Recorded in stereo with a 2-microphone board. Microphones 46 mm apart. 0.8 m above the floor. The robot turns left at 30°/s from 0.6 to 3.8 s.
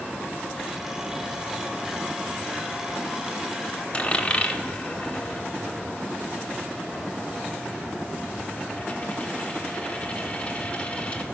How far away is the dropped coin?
About 1.0 m.